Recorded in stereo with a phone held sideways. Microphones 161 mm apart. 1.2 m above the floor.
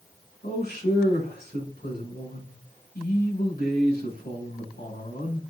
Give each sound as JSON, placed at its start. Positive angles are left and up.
{"t": 0.4, "sound": "a man speaking", "side_deg": 75, "distance_m": 5.0}